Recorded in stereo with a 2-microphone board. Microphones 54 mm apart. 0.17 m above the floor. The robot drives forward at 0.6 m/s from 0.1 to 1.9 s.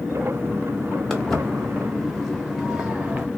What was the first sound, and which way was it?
Footsteps, 5° left (ahead or behind).